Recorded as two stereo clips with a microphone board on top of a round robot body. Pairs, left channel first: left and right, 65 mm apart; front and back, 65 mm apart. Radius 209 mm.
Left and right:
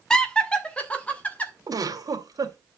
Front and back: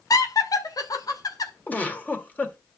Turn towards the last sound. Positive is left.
turn(degrees=-65)